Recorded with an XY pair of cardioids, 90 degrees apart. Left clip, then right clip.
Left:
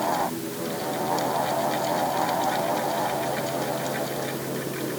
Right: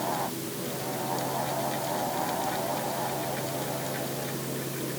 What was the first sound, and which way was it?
A fan, 45° left.